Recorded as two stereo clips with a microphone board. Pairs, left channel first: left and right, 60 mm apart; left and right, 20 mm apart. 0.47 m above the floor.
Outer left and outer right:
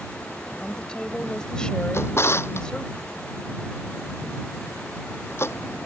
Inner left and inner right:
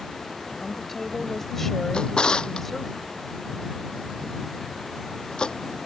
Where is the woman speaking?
15° left (ahead or behind).